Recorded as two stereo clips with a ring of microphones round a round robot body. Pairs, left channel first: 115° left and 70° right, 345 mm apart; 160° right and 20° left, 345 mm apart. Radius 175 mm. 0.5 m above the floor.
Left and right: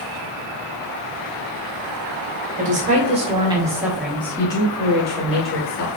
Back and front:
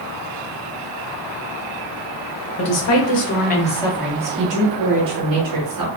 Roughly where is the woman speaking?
Behind right.